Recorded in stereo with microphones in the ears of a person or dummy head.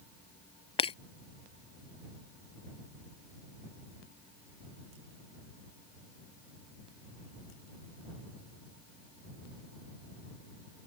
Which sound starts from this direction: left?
Breaking glass, at 0.8 s.